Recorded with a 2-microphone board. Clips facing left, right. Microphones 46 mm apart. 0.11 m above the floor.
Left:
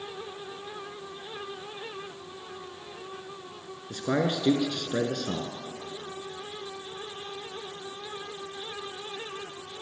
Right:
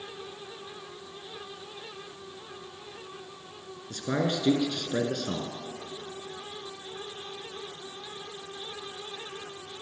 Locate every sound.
3.9 s a man speaking: 10° left (ahead or behind), 1.2 m